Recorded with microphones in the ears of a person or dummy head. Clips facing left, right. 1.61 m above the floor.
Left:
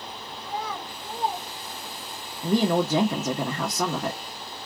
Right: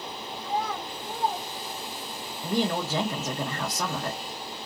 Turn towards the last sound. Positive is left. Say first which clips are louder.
# left 5 dB
turn(degrees=55)  # may be behind; listen again after turning